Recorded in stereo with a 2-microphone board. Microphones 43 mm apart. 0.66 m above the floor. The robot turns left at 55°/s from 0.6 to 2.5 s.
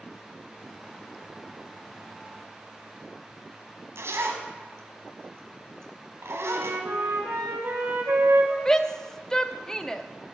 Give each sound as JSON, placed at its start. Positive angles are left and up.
{"t": 4.0, "sound": "a zipper", "side_deg": -80, "distance_m": 1.5}
{"t": 6.4, "sound": "a flute", "side_deg": -60, "distance_m": 2.5}
{"t": 8.7, "sound": "a shout", "side_deg": 15, "distance_m": 0.7}